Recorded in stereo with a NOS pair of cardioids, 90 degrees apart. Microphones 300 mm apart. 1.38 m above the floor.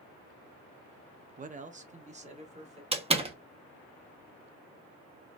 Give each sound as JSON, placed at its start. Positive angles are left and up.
{"t": 1.4, "sound": "a man speaking", "azimuth_deg": -30, "distance_m": 0.5}
{"t": 2.9, "sound": "a door slam", "azimuth_deg": -20, "distance_m": 0.8}